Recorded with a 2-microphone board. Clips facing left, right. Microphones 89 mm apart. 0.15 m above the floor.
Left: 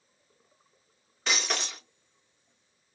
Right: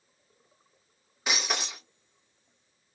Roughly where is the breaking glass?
Centre.